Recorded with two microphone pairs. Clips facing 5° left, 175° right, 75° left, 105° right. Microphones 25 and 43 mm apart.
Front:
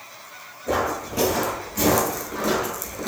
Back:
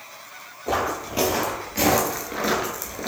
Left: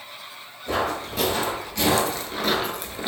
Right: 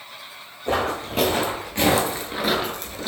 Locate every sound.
0.7 s footsteps: 120° right, 1.6 m; by 3.1 s 125° left, 0.8 m